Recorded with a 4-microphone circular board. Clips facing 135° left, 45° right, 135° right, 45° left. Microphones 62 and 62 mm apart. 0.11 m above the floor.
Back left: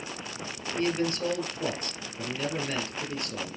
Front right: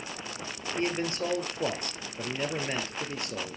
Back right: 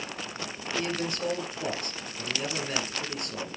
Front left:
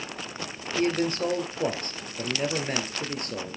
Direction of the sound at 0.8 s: 15° left.